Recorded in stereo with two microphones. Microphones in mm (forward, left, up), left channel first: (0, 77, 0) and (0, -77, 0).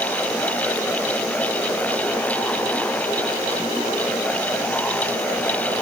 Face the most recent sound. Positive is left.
No sound to turn to.